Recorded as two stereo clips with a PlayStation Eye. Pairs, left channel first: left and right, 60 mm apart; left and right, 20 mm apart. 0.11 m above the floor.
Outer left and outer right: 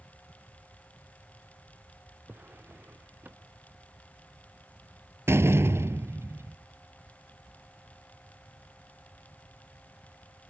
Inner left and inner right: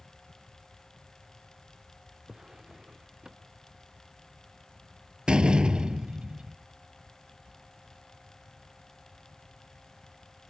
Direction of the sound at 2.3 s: 35° right (ahead or behind).